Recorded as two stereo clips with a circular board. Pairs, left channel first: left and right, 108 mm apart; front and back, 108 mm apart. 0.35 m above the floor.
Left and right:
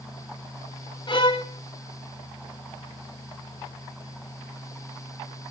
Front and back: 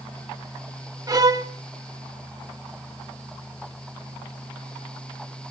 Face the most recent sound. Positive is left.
turn(degrees=130)